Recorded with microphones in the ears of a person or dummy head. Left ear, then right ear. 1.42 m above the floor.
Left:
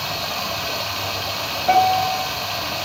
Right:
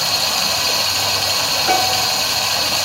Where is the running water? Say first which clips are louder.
Right 7 dB; 75° right (ahead or behind), 5 m.